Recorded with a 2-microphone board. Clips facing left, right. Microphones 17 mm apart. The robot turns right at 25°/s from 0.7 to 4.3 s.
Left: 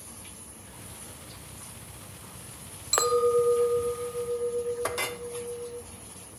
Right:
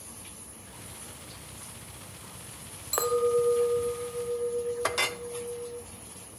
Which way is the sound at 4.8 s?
25° right (ahead or behind).